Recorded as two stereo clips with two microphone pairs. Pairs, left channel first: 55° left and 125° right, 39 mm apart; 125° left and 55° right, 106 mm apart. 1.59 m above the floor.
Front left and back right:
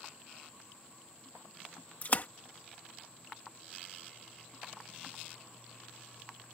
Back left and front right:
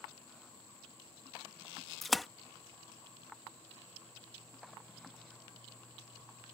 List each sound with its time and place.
2.0 s a splash: 35° left